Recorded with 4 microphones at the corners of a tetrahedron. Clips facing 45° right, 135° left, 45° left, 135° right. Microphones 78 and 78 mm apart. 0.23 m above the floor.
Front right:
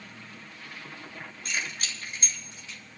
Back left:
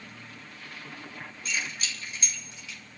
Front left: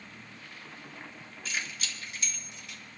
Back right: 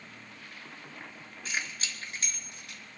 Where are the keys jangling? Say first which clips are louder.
Even, back right 1 dB; 80° right, 3 m; by 2.8 s 100° right, 3.5 m.